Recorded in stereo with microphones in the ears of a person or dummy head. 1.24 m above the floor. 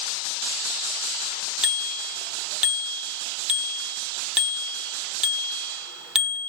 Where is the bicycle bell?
5° right (ahead or behind), 2 m.